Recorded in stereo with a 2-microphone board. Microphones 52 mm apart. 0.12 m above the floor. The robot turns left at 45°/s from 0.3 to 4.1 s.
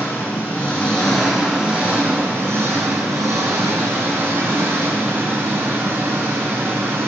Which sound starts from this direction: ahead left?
An engine running, at 0.0 s.